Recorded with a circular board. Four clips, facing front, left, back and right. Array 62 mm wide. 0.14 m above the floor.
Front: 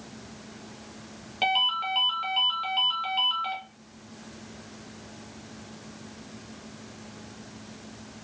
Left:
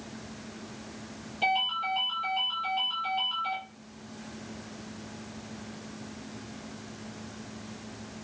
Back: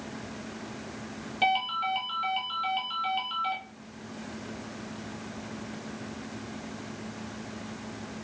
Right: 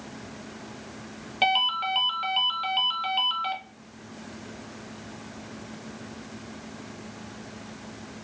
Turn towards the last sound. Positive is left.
turn(degrees=-80)